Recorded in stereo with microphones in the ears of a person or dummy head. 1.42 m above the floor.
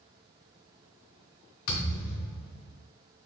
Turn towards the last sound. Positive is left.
turn(degrees=55)  # may be behind; listen again after turning